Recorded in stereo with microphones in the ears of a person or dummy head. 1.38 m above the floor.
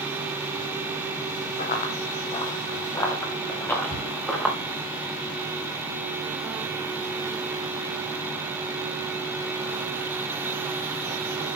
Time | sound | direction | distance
1.6 | running footsteps | 45° left (ahead or behind) | 3 m
3.9 | a cupboard door | 40° left (ahead or behind) | 9 m